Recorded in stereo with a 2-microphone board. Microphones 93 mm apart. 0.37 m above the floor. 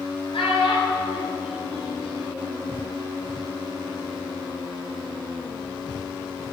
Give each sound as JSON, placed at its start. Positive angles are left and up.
{"t": 0.3, "sound": "a child speaking", "side_deg": 75, "distance_m": 4.5}